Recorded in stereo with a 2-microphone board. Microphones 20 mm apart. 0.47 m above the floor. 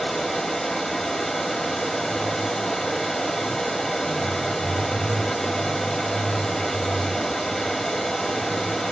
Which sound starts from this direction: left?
Running water, at 0.0 s.